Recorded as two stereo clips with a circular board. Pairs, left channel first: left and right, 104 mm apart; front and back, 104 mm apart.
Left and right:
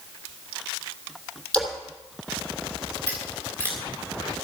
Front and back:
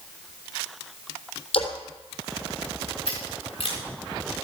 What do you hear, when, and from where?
1.5 s a splash: 15° left, 3 m
3.1 s scissors: 25° left, 7.5 m